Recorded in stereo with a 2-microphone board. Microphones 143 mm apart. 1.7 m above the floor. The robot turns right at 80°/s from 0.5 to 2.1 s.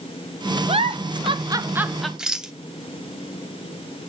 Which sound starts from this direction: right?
A giggle, at 0.7 s.